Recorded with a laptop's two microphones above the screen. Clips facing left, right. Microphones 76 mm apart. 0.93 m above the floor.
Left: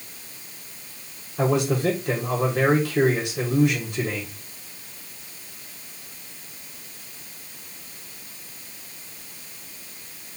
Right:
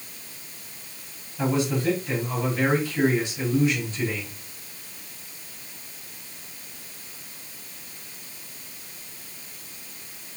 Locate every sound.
1.4 s a man speaking: 65° left (ahead or behind), 4 m